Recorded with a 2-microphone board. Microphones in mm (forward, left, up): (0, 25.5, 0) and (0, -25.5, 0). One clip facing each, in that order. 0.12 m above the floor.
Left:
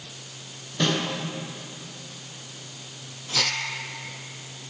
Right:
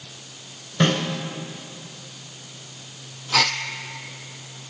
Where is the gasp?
80° right, 0.7 m.